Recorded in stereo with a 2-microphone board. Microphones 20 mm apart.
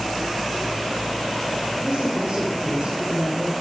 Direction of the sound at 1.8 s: 75° right (ahead or behind).